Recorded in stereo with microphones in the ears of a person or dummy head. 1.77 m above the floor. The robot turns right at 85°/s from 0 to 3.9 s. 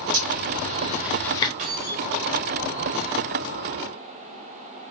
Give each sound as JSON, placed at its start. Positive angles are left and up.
{"t": 0.1, "sound": "a zipper", "side_deg": -80, "distance_m": 0.7}
{"t": 1.6, "sound": "keys jangling", "azimuth_deg": -40, "distance_m": 1.0}